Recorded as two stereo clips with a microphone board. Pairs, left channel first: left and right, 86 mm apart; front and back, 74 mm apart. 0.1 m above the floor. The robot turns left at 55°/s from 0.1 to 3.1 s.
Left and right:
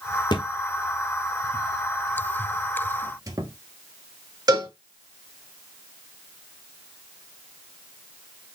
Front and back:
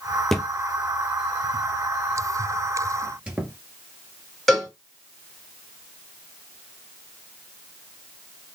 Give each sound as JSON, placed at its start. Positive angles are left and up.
{"t": 0.3, "sound": "a thud", "azimuth_deg": 85, "distance_m": 0.9}
{"t": 3.0, "sound": "a squeak", "azimuth_deg": -105, "distance_m": 1.3}
{"t": 4.5, "sound": "a cowbell", "azimuth_deg": -90, "distance_m": 2.5}